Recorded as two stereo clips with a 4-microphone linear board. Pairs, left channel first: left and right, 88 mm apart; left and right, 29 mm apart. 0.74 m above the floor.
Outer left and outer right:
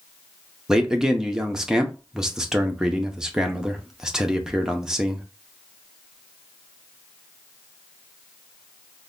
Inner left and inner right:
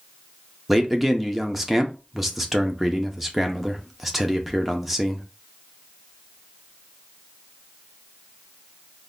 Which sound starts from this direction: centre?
A man speaking, at 0.7 s.